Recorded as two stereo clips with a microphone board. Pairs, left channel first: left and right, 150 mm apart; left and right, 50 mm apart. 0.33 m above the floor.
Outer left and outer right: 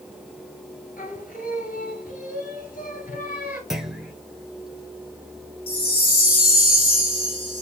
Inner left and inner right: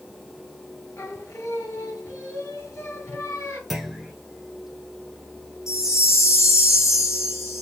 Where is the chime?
75° left (ahead or behind), 2.5 m.